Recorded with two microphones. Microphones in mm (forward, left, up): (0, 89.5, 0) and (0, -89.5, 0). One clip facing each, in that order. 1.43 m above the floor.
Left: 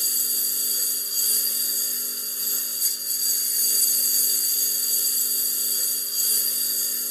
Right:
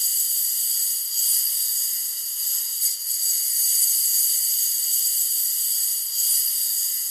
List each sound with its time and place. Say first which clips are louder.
0.0 s a lawn mower: left 14 dB; 65° left (ahead or behind)